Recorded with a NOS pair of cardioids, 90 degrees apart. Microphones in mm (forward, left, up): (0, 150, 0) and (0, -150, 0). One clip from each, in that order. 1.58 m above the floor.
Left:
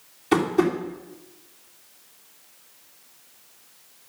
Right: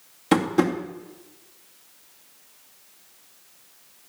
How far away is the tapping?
About 2.5 m.